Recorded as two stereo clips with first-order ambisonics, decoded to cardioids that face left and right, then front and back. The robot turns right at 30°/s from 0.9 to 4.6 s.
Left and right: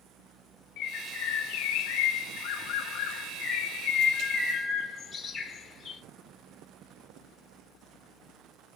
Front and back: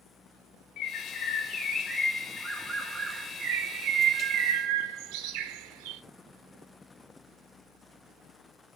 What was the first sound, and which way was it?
A bird, 55° left.